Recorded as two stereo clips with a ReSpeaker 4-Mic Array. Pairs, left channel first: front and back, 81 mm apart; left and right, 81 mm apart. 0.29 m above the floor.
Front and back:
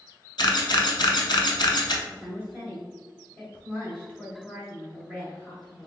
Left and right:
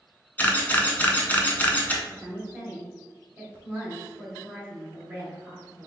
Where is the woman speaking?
50° right, 1.5 m.